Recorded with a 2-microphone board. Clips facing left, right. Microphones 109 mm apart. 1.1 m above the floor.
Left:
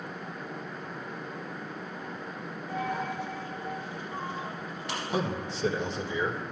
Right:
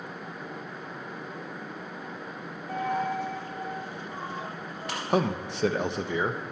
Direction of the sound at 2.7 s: 50° right (ahead or behind).